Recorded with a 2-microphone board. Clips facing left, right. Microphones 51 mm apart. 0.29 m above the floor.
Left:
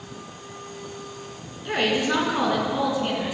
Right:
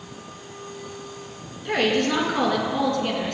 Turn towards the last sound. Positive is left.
turn(degrees=10)  # may be behind; listen again after turning